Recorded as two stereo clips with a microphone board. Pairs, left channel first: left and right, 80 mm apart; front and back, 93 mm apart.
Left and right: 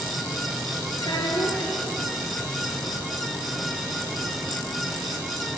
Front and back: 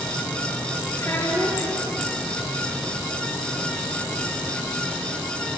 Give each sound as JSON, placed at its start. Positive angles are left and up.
{"t": 1.0, "sound": "a child speaking", "azimuth_deg": 60, "distance_m": 6.5}